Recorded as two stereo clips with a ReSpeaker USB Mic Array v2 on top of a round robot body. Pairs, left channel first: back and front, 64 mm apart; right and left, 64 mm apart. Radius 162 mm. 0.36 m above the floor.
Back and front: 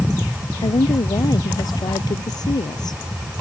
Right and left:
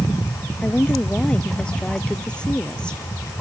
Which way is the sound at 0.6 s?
165° right.